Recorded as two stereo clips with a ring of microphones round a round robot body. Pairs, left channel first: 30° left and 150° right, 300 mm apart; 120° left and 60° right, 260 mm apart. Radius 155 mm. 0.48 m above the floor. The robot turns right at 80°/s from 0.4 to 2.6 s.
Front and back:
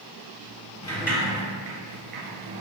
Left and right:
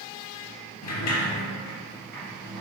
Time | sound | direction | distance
0.8 | a sliding door | 105° left | 2 m